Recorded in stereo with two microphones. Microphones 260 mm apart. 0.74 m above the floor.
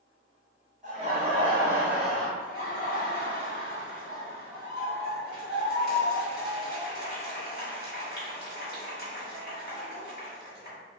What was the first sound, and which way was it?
Laughter, 30° right (ahead or behind).